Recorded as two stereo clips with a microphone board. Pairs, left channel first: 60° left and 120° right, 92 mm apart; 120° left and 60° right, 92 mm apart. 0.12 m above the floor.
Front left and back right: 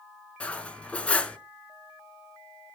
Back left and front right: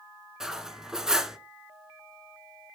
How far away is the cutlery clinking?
About 0.6 m.